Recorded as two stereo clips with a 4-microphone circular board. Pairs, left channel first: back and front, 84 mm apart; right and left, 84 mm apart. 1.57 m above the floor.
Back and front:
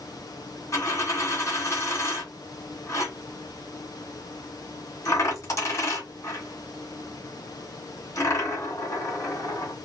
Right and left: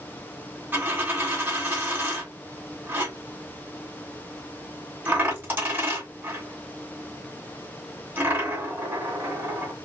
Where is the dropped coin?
145° left, 1.9 m.